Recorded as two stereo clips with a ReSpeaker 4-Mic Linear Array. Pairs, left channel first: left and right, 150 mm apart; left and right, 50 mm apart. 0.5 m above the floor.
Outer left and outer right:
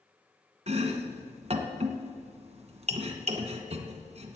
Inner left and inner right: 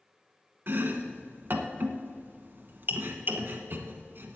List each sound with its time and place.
0.7 s chopping: 50° right (ahead or behind), 1.0 m